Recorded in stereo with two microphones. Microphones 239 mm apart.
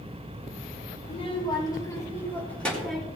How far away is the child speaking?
About 3 m.